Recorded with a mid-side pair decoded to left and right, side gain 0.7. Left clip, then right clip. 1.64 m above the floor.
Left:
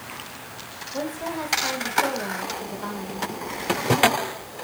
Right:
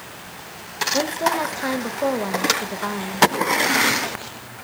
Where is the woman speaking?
30° right, 2.5 m.